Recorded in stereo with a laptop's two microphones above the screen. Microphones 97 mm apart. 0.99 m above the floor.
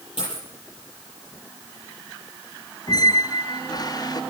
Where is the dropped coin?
60° left (ahead or behind), 6.5 m.